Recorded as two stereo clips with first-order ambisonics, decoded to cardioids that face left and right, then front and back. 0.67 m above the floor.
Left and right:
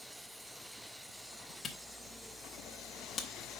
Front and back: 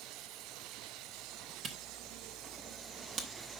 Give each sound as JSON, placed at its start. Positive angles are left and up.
{"t": 1.6, "sound": "a camera shutter", "azimuth_deg": 150, "distance_m": 1.0}